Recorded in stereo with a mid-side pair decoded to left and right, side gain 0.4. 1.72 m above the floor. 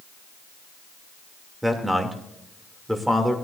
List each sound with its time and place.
1.6 s a man speaking: 5° right, 2.5 m